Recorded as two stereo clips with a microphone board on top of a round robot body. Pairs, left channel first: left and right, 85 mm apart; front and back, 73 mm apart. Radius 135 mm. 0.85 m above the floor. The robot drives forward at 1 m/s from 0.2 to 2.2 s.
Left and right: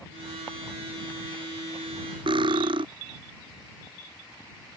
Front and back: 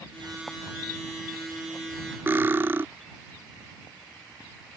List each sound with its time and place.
2.3 s cutlery clinking: 115° right